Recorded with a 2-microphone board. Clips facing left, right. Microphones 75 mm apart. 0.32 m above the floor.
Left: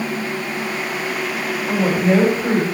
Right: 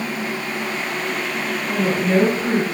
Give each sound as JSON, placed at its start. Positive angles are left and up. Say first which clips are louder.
{"t": 1.7, "sound": "a woman speaking", "louder": "left 3 dB", "side_deg": 40, "distance_m": 2.5}